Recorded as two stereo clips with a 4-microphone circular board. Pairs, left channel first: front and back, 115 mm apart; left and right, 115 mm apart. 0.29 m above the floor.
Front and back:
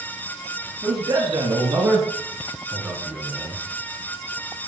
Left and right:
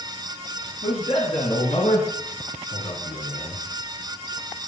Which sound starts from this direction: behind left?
A man speaking, at 0.8 s.